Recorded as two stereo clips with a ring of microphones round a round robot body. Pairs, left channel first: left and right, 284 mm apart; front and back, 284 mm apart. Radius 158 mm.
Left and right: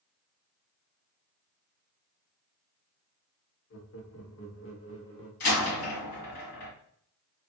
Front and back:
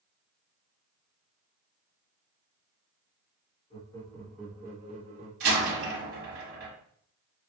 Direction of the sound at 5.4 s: 130° left.